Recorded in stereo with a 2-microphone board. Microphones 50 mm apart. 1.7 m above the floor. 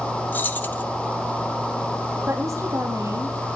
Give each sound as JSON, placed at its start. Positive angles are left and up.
{"t": 0.3, "sound": "keys jangling", "side_deg": 35, "distance_m": 1.3}
{"t": 2.3, "sound": "a woman speaking", "side_deg": -75, "distance_m": 4.0}